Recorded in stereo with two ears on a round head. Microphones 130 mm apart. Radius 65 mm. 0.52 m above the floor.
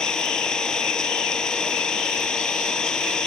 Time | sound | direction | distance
0.0 | an engine running | 5° left (ahead or behind) | ?